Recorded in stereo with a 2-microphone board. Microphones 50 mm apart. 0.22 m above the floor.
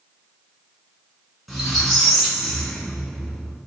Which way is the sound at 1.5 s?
5° left (ahead or behind).